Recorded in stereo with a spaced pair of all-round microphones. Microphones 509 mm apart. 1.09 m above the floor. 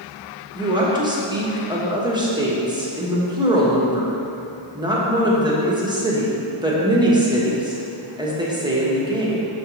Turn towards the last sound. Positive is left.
turn(degrees=-10)  # may be behind; listen again after turning